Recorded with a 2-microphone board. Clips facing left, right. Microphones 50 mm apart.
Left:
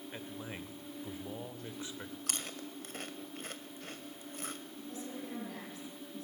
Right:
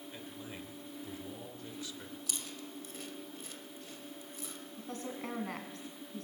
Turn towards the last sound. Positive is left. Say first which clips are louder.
# right 4 dB
turn(degrees=-55)  # may be behind; listen again after turning